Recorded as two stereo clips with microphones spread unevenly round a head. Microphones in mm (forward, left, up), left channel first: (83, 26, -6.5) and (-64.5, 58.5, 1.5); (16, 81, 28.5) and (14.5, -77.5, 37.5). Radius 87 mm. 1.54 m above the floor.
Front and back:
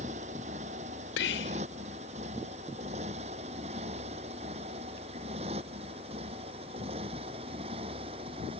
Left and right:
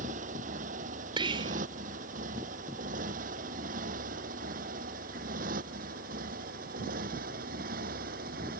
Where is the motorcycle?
135° right; by 8.6 s 130° right.